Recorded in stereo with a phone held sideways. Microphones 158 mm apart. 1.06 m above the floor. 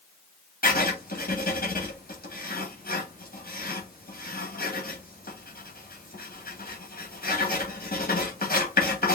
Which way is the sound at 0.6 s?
65° left (ahead or behind).